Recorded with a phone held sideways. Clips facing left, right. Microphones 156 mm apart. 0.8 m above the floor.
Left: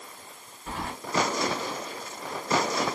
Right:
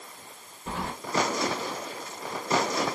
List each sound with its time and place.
0.7 s keys jangling: 30° right (ahead or behind), 1.4 m